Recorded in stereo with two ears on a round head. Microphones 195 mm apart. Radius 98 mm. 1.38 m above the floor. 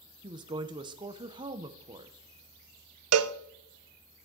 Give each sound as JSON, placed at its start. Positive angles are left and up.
{"t": 0.2, "sound": "a woman speaking", "side_deg": -20, "distance_m": 0.8}
{"t": 3.1, "sound": "a cowbell", "side_deg": -75, "distance_m": 0.6}